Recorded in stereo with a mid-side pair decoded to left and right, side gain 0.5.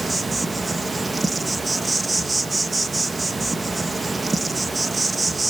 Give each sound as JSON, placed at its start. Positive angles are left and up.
{"t": 0.0, "sound": "an insect", "azimuth_deg": -20, "distance_m": 1.4}